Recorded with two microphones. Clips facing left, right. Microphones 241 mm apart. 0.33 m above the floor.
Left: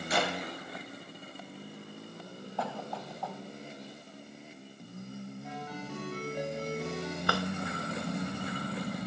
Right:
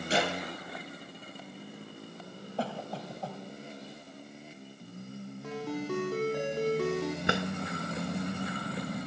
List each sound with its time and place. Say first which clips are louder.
0.1 s a clap: right 2 dB; 30° right (ahead or behind), 9 m
2.6 s a cough: right 2 dB; 30° right (ahead or behind), 2.5 m
5.4 s a ringtone: right 12 dB; 85° right, 7 m
7.3 s a drawer: left 1 dB; 20° right (ahead or behind), 1.1 m